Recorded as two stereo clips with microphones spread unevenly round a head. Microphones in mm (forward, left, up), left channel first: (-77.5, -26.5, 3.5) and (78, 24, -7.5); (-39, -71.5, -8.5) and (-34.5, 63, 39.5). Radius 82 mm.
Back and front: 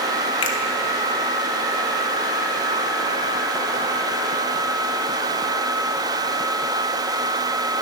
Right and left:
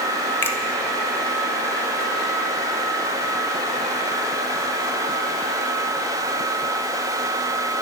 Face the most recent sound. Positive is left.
turn(degrees=-160)